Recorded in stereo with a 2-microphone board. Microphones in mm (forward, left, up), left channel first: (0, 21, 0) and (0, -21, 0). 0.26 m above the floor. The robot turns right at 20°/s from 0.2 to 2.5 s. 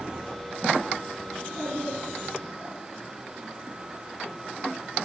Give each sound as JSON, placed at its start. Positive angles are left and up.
{"t": 1.3, "sound": "a child speaking", "side_deg": 0, "distance_m": 2.5}